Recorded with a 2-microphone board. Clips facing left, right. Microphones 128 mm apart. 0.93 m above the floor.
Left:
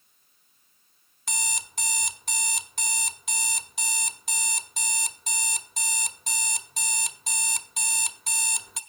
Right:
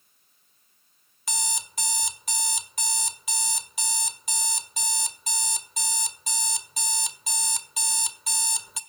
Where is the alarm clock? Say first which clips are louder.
Right 2 dB; centre (ahead or behind), 1.1 m.